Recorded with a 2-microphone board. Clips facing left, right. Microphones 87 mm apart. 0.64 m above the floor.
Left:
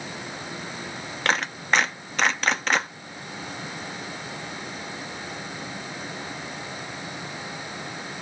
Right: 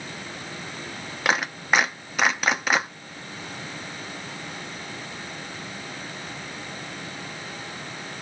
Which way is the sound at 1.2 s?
5° right (ahead or behind).